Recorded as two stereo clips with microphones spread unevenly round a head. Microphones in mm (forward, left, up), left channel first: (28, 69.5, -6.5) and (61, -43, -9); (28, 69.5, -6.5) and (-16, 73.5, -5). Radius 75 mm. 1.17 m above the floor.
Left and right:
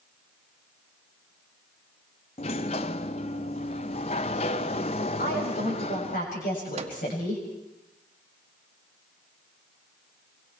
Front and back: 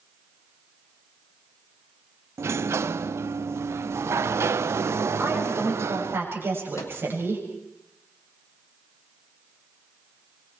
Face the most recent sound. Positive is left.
turn(degrees=-45)